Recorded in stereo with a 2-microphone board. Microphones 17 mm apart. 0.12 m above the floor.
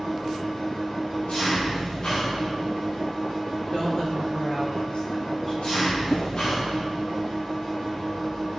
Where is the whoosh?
75° left (ahead or behind), 0.7 m.